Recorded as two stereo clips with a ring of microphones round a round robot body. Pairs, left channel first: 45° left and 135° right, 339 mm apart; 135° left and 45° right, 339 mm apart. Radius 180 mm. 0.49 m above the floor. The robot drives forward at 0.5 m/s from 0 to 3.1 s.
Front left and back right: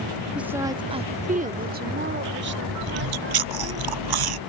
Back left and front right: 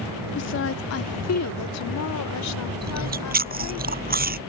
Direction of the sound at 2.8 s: 110° right.